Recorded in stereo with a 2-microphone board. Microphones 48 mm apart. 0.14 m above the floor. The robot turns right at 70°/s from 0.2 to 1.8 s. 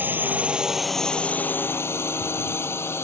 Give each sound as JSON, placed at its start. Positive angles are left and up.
{"t": 0.0, "sound": "a drone", "side_deg": -40}